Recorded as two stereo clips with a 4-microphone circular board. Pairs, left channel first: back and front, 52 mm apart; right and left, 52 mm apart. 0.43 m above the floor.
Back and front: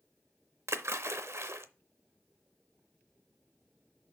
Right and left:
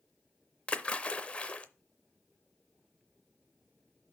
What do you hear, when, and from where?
0.7 s a splash: 25° right, 0.6 m